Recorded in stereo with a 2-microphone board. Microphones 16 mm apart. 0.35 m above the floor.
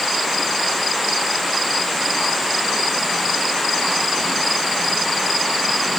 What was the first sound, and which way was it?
Only background noise.